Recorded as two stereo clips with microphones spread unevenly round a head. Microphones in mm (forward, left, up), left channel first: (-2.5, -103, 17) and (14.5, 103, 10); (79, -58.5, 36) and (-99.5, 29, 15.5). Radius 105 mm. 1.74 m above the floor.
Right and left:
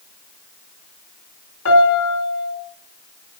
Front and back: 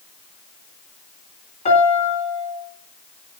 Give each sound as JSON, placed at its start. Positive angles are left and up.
{"t": 1.6, "sound": "a piano", "azimuth_deg": -80, "distance_m": 3.5}